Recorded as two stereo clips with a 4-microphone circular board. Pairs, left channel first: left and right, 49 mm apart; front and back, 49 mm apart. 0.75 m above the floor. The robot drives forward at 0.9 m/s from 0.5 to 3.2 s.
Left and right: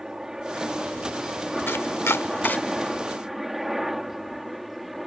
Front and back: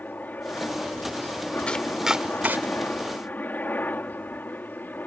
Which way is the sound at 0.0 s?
20° right.